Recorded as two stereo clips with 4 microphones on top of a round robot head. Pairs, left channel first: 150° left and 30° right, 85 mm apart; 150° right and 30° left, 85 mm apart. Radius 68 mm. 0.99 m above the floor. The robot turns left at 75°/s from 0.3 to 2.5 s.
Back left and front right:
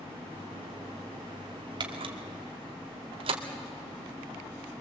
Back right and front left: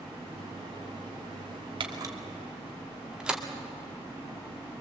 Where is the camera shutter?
5° left, 2 m; by 3.4 s 50° right, 2 m.